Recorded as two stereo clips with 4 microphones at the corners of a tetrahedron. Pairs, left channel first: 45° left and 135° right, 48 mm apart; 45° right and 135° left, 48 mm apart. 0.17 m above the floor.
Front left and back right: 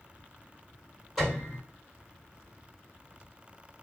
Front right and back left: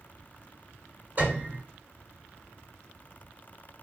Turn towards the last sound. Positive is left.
turn(degrees=135)